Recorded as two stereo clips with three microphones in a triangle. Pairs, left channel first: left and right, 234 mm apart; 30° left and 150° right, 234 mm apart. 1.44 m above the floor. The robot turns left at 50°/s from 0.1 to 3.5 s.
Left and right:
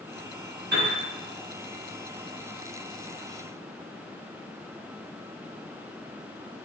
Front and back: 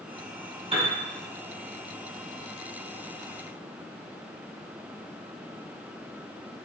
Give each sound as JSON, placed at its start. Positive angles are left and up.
{"t": 0.7, "sound": "a piano", "azimuth_deg": -90, "distance_m": 1.1}